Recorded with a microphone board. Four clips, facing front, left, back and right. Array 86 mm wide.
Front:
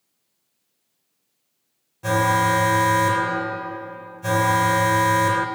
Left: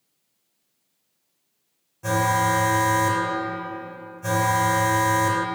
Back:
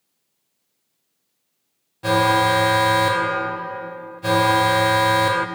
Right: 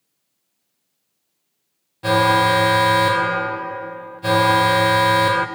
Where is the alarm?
120° right, 1.1 m.